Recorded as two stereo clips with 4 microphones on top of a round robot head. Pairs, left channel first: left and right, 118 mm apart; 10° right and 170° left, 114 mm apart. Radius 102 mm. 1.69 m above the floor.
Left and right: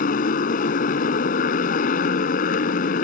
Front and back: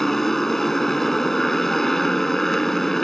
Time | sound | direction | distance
0.0 | a motorcycle | 80° left | ?